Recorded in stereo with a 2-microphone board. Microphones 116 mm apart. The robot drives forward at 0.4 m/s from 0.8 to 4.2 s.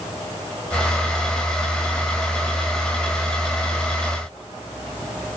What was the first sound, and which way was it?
Only background noise.